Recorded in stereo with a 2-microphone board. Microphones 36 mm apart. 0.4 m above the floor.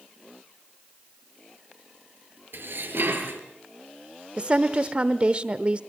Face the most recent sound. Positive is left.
turn(degrees=-30)  # may be behind; listen again after turning